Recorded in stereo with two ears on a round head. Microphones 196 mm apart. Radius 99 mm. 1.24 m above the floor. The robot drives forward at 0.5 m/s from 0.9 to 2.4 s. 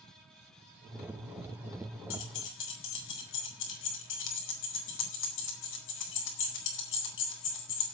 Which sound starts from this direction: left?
Keys jangling, at 2.1 s.